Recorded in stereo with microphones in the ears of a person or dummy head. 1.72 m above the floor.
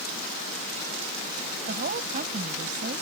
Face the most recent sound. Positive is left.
turn(degrees=-45)  # may be behind; listen again after turning